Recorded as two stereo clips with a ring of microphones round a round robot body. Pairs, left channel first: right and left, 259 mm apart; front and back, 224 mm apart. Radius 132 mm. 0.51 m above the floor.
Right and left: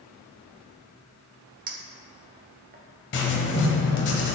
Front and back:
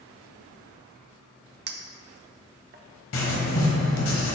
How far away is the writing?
About 1.2 m.